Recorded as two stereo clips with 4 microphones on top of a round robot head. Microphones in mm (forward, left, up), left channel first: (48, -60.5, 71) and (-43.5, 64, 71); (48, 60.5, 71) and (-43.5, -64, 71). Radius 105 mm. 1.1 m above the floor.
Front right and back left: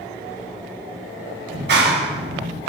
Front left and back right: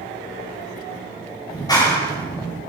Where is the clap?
120° left, 5.5 m.